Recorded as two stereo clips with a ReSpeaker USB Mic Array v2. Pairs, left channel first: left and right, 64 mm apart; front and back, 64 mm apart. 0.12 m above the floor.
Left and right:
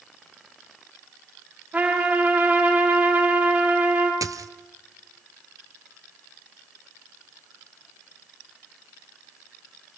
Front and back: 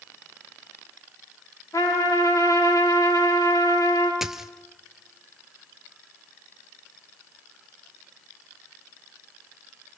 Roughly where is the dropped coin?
Right.